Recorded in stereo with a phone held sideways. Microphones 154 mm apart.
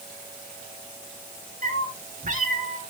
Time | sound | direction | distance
1.6 | a cat meowing | 60° right (ahead or behind) | 2 m